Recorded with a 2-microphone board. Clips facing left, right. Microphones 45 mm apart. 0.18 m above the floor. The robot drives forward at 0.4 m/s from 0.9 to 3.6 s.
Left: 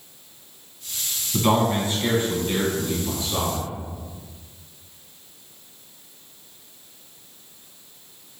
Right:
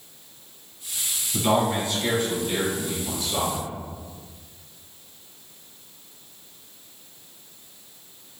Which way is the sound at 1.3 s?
30° left (ahead or behind).